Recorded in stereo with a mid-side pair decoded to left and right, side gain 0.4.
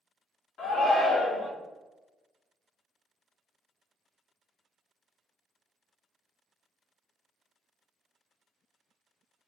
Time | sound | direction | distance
0.6 | a shout | 70° left | 1.8 m